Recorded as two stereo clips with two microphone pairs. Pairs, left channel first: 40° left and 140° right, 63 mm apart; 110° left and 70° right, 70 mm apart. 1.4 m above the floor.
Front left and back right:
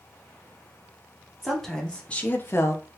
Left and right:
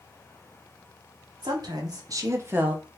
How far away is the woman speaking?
About 1.0 m.